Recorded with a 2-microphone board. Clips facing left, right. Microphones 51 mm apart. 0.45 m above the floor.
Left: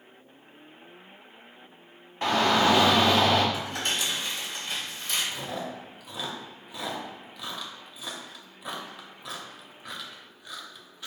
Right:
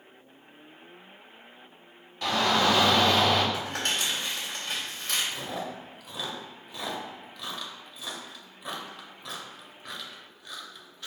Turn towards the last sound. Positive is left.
turn(degrees=5)  # may be behind; listen again after turning